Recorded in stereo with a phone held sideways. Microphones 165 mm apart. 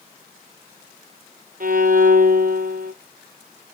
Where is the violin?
60° right (ahead or behind), 0.7 m.